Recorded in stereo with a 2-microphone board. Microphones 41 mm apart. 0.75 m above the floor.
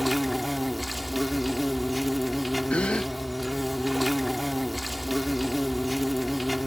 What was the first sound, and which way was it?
An insect, centre (ahead or behind).